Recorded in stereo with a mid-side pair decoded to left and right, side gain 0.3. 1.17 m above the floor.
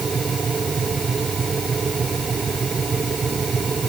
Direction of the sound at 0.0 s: 40° right.